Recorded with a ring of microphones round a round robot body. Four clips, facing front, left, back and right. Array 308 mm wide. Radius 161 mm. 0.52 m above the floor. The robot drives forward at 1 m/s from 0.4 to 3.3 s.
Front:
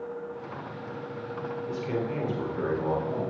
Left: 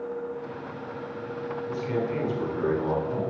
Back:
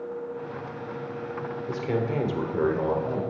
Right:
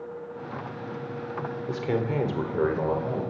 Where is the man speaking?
110° right, 2 m; by 3.2 s 140° right, 3 m.